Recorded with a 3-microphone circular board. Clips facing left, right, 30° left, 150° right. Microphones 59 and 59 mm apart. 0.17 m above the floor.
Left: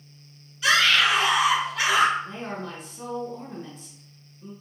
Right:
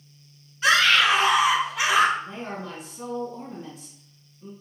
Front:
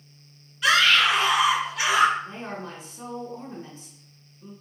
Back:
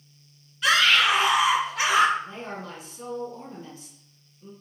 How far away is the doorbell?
I don't hear a doorbell.